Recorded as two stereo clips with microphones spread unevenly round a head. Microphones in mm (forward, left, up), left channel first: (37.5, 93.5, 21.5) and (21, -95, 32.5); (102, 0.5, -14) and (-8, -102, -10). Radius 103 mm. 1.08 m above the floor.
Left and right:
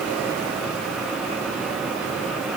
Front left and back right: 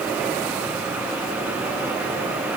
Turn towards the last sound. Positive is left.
No sound to turn to.